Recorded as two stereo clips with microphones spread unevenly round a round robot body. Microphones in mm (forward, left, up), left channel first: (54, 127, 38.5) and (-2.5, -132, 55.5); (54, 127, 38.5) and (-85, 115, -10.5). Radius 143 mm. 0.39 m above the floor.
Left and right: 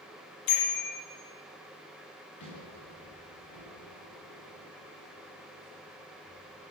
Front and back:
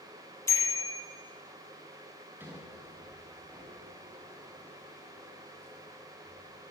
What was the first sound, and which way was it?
A bicycle bell, 75° left.